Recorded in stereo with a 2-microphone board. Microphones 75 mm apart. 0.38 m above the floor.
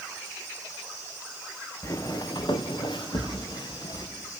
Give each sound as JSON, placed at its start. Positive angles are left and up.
{"t": 1.8, "sound": "footsteps", "side_deg": 40, "distance_m": 1.7}